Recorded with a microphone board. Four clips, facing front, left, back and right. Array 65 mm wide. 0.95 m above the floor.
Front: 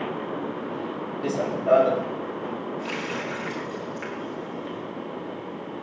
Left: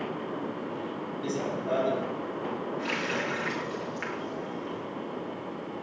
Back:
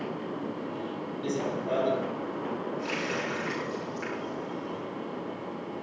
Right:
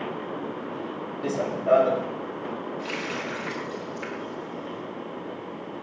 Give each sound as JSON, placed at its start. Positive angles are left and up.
{"t": 1.2, "sound": "running footsteps", "azimuth_deg": -25, "distance_m": 2.0}
{"t": 2.8, "sound": "a running tap", "azimuth_deg": 70, "distance_m": 9.5}